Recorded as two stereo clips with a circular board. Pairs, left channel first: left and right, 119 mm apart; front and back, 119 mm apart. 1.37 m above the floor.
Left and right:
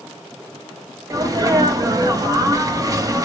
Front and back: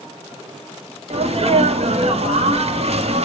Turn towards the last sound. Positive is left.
turn(degrees=-150)